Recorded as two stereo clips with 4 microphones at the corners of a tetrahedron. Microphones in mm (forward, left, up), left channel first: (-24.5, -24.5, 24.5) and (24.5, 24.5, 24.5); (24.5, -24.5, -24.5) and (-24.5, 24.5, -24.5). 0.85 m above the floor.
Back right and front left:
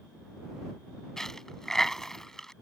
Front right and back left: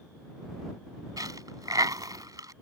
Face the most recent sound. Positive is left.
turn(degrees=145)